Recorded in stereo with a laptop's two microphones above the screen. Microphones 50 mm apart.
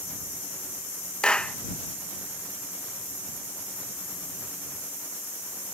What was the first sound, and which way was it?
A clap, 20° left (ahead or behind).